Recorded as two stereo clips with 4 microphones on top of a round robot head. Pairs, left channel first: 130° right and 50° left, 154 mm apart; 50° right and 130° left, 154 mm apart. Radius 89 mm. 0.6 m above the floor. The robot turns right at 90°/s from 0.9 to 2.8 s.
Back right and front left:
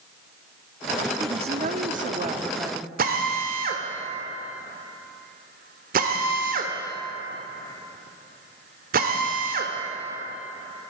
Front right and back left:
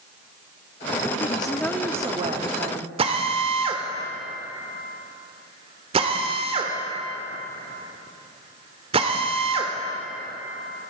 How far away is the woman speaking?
About 0.9 m.